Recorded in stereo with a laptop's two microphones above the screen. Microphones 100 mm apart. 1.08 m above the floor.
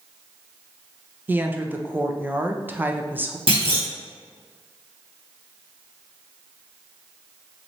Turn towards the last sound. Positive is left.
turn(degrees=-70)  # may be behind; listen again after turning